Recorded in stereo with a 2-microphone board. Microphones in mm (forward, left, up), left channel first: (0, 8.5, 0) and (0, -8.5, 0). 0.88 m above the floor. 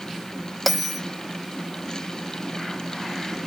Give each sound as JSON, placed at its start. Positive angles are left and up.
{"t": 0.7, "sound": "a bell", "side_deg": 10, "distance_m": 0.9}